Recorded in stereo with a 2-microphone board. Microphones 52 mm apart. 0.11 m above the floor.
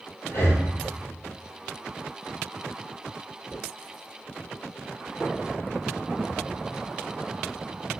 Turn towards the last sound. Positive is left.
turn(degrees=50)  # may be behind; listen again after turning